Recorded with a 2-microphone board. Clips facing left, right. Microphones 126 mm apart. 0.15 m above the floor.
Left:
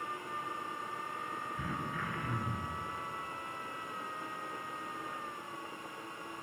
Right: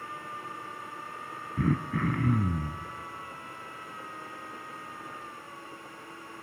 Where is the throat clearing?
55° right (ahead or behind), 1.4 m.